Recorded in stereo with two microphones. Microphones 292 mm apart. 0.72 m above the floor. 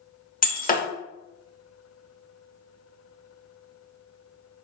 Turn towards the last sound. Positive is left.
turn(degrees=30)  # may be behind; listen again after turning